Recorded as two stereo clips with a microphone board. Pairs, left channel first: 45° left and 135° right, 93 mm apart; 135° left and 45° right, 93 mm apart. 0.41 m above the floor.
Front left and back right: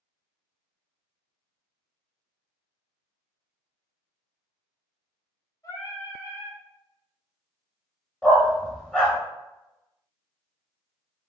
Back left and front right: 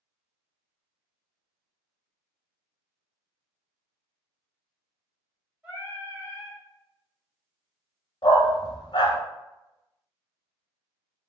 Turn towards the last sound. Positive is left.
turn(degrees=125)